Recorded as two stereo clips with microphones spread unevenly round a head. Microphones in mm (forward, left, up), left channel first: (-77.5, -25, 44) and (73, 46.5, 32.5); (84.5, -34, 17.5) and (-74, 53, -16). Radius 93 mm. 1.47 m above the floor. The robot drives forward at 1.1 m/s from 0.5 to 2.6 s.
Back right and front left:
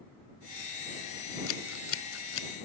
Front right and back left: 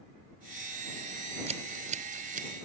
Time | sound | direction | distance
1.5 | scissors | 150° right | ?